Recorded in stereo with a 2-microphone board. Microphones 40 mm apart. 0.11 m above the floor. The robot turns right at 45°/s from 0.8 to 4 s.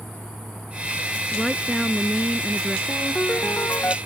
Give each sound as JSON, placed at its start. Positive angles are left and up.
{"t": 1.3, "sound": "a woman speaking", "side_deg": 5}
{"t": 2.9, "sound": "a ringtone", "azimuth_deg": 25}